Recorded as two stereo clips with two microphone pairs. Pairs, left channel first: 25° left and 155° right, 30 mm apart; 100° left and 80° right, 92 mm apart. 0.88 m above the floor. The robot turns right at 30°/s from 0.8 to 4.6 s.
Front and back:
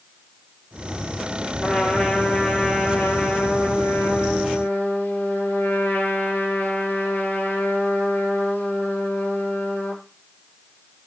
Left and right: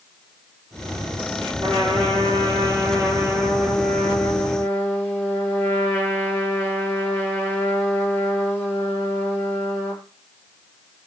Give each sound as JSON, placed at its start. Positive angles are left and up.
{"t": 1.6, "sound": "a trumpet", "azimuth_deg": -55, "distance_m": 7.0}